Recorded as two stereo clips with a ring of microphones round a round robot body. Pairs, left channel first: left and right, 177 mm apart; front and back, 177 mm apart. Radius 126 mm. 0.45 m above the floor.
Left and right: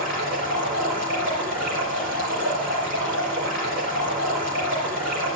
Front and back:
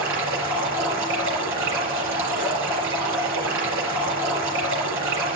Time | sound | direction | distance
0.0 | running water | 150° right | 5 m